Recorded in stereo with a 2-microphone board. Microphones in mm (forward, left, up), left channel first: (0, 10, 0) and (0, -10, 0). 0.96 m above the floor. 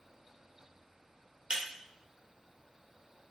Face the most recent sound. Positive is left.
turn(degrees=-65)  # may be behind; listen again after turning